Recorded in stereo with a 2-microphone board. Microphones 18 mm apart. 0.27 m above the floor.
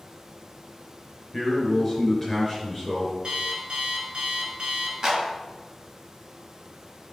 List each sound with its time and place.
1.3 s a man speaking: 15° left (ahead or behind), 4 m
3.2 s an alarm clock: 55° right (ahead or behind), 1.8 m
5.0 s a clap: 30° right (ahead or behind), 2.5 m